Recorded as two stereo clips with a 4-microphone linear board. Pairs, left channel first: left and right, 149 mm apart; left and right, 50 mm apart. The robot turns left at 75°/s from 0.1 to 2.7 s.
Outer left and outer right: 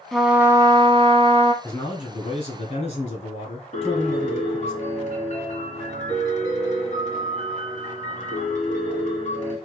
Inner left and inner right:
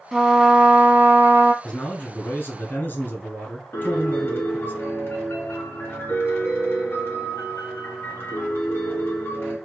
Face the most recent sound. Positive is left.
turn(degrees=50)  # may be behind; listen again after turning